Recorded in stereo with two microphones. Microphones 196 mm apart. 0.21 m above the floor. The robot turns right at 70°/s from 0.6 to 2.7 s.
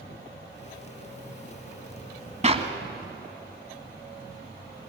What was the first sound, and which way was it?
A clap, 35° right (ahead or behind).